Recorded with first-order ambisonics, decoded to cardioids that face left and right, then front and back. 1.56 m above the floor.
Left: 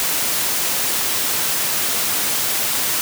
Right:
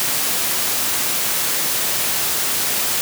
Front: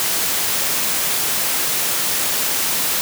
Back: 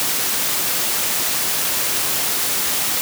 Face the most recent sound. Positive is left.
No sound to turn to.